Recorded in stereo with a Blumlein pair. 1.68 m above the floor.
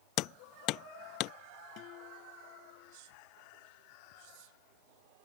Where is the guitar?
40° left.